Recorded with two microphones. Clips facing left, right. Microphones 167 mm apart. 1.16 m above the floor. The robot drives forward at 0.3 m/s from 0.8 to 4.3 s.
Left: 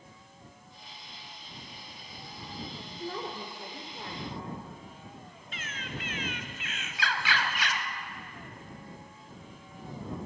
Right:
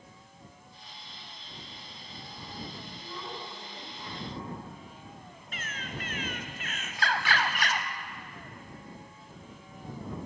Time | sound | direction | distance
3.0 | a woman speaking | 60° left (ahead or behind) | 3 m
5.5 | a bird | 45° right (ahead or behind) | 1.3 m